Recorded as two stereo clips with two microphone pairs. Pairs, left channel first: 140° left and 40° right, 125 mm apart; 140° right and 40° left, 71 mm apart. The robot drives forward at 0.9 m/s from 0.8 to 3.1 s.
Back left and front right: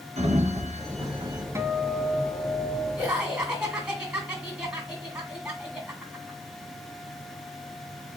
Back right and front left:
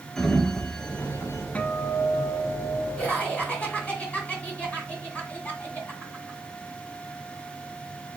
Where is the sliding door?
55° right, 0.9 m; by 1.4 s 100° right, 0.8 m.